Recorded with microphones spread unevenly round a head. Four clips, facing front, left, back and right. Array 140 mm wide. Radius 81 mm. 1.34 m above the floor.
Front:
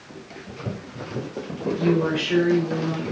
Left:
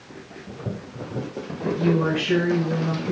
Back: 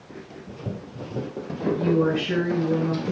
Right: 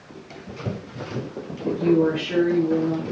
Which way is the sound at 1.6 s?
135° left.